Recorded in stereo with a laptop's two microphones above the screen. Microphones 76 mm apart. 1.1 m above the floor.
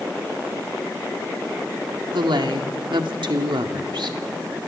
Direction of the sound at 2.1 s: 80° right.